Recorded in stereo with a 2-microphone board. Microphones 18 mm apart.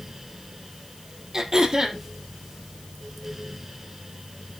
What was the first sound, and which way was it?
Throat clearing, 25° right (ahead or behind).